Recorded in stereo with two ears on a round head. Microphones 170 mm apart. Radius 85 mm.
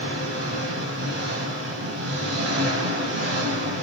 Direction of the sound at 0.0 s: 65° right (ahead or behind).